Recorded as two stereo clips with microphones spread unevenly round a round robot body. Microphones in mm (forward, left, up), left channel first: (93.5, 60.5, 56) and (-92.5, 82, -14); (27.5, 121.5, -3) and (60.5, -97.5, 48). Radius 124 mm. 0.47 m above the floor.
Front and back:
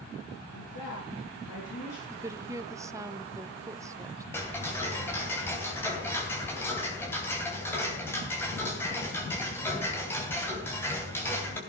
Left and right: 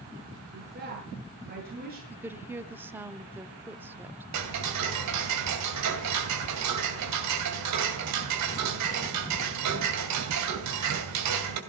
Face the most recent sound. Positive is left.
turn(degrees=-95)